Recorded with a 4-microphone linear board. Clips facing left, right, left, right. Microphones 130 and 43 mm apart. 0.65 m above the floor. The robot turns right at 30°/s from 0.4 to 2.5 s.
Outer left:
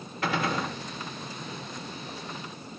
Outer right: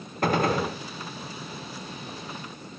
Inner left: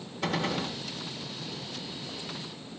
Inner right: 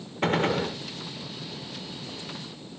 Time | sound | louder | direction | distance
0.2 | a gunshot | outer right 5 dB, inner right 6 dB | 45° right (ahead or behind) | 0.8 m